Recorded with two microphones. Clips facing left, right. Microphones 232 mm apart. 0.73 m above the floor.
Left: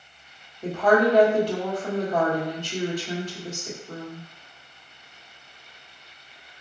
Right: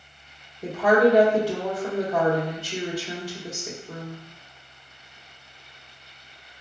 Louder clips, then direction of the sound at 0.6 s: Right 1 dB; 10° right (ahead or behind).